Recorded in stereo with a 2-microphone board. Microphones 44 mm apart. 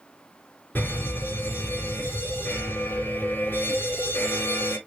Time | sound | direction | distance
0.8 | a fire alarm | 50° left (ahead or behind) | 4 m